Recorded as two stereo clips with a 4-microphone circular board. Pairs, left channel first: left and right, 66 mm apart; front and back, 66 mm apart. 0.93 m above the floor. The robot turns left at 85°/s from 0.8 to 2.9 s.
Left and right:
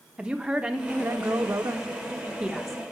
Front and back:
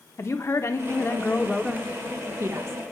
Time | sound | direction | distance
0.2 | a woman speaking | 20° right | 0.8 m